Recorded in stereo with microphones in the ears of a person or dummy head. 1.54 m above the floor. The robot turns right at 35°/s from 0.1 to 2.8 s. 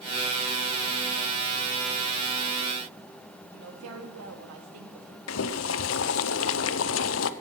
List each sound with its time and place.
3.5 s a woman speaking: 85° right, 2.5 m
5.3 s boiling: 75° left (ahead or behind), 0.7 m